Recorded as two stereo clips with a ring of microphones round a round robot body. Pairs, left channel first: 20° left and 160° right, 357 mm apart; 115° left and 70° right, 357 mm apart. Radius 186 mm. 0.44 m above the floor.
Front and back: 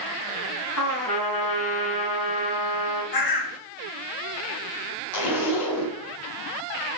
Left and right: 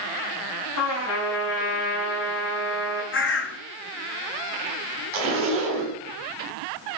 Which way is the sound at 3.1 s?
55° left.